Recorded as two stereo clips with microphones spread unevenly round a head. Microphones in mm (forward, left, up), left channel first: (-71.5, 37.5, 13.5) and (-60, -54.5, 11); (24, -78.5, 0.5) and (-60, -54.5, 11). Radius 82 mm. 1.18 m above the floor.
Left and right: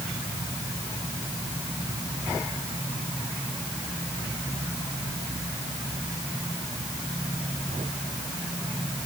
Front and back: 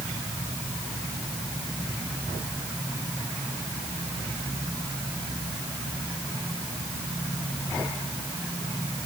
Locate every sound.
Only background noise.